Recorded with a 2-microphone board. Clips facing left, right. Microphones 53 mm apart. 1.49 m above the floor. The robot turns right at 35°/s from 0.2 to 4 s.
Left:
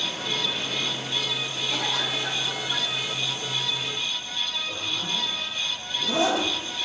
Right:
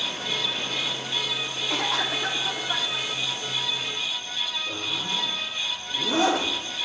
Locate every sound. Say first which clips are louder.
1.7 s a cough: right 2 dB; 90° right, 3.5 m; by 3.1 s 45° right, 3.5 m
4.7 s a zipper: even; 80° right, 8.5 m